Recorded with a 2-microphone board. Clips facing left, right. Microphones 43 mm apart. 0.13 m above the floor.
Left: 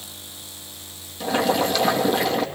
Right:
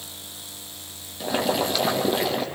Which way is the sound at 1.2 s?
5° right (ahead or behind).